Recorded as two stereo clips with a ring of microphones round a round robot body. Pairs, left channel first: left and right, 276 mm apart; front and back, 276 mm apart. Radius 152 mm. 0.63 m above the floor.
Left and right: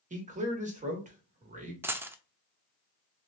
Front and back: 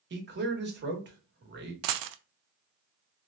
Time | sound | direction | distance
0.1 | a man speaking | 145° right | 1.5 m
1.8 | a dropped coin | 175° right | 0.5 m